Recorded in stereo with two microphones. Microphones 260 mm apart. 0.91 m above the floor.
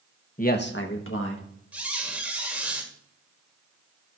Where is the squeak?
5° right (ahead or behind), 1.6 m.